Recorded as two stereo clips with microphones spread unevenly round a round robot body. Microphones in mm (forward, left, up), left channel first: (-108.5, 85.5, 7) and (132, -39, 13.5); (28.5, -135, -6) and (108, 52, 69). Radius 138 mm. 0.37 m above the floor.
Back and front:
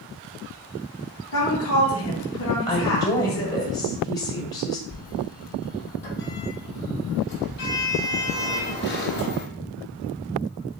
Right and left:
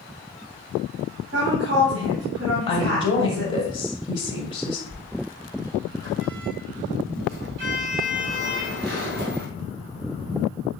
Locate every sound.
1.3 s a woman speaking: 120° left, 2.5 m
2.7 s a woman speaking: 135° right, 1.6 m
4.9 s a sliding door: 100° left, 3 m